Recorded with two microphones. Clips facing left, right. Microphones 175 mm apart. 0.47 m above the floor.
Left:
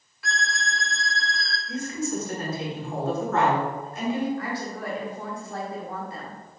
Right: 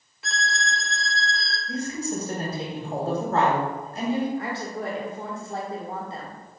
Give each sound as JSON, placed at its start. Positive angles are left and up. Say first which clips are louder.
{"t": 0.2, "sound": "a violin", "louder": "right 1 dB", "side_deg": -20, "distance_m": 0.6}
{"t": 1.7, "sound": "a woman speaking", "louder": "even", "side_deg": -35, "distance_m": 1.3}
{"t": 4.4, "sound": "a woman speaking", "louder": "right 1 dB", "side_deg": -25, "distance_m": 1.1}